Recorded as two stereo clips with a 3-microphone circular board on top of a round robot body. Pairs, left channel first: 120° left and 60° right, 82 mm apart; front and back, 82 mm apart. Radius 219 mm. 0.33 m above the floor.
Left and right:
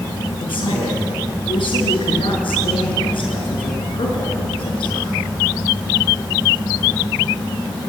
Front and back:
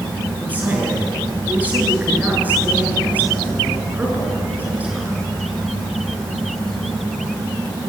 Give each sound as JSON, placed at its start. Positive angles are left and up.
{"t": 0.4, "sound": "a man speaking", "azimuth_deg": 110, "distance_m": 6.5}